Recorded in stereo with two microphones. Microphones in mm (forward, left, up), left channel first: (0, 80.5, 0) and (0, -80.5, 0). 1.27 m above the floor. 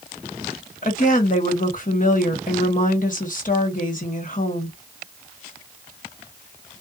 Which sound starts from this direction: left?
A woman speaking, at 0.8 s.